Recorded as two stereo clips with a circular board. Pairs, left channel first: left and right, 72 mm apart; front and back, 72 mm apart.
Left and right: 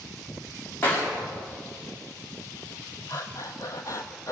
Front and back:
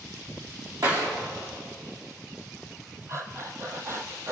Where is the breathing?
130° left, 1.6 m.